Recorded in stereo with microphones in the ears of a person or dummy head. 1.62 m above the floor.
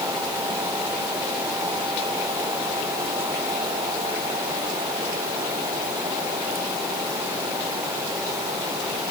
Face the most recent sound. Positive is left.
No sound to turn to.